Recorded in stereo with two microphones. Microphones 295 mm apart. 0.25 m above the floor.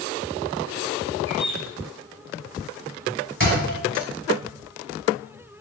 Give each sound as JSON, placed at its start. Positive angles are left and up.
{"t": 1.3, "sound": "a bird", "side_deg": 25, "distance_m": 1.7}
{"t": 3.4, "sound": "a thud", "side_deg": -45, "distance_m": 0.9}